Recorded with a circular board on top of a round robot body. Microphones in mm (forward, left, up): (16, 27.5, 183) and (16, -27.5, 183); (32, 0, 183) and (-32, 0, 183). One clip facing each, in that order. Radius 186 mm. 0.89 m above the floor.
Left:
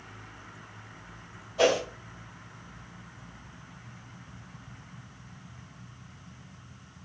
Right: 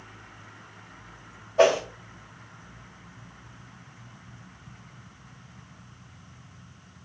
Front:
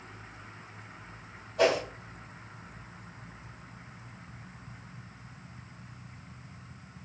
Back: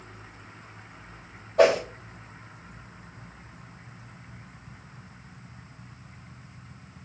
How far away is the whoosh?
About 3 m.